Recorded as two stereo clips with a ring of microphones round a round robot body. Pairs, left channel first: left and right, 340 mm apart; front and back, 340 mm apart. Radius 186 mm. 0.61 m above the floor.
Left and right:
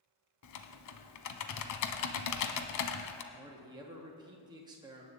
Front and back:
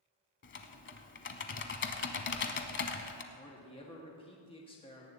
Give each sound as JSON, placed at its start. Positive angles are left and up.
{"t": 0.4, "sound": "typing on a keyboard", "azimuth_deg": 55, "distance_m": 0.9}
{"t": 3.3, "sound": "a man speaking", "azimuth_deg": -35, "distance_m": 1.1}